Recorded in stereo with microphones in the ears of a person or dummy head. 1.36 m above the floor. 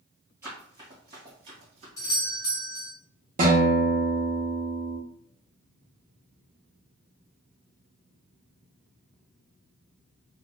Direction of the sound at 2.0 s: 15° left (ahead or behind).